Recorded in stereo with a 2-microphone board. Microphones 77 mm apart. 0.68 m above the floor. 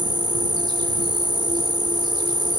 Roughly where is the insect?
Right.